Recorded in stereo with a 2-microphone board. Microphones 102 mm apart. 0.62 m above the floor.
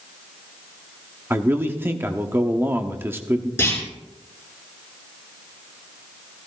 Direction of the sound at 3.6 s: 20° left (ahead or behind).